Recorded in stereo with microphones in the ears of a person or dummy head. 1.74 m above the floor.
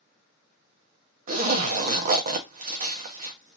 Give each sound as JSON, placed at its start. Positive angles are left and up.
{"t": 1.3, "sound": "a zipper", "side_deg": -45, "distance_m": 0.6}